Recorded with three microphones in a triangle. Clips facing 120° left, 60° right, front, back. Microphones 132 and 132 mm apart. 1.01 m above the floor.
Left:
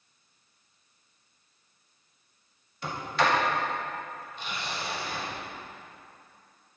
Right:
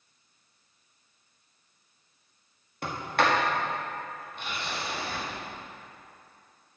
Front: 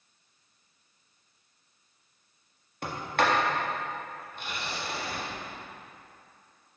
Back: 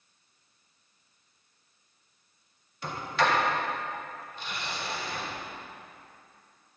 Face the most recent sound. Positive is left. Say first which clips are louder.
# right 1 dB, even
turn(degrees=-30)